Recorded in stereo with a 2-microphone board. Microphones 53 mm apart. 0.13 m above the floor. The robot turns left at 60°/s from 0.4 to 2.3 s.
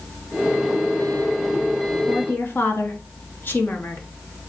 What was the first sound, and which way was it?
A woman speaking, 40° left (ahead or behind).